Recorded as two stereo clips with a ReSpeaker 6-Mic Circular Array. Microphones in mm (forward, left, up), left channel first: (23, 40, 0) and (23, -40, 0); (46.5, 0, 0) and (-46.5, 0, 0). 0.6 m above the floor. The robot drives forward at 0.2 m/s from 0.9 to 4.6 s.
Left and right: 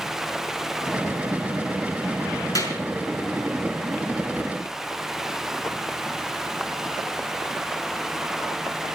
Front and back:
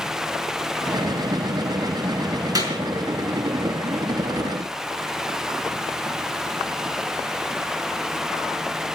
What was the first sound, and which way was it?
A clap, 135° left.